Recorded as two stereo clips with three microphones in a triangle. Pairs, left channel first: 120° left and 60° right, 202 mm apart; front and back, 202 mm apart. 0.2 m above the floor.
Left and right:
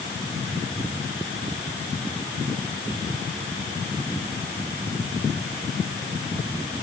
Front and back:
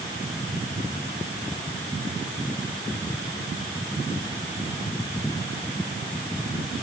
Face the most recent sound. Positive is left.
No sound to turn to.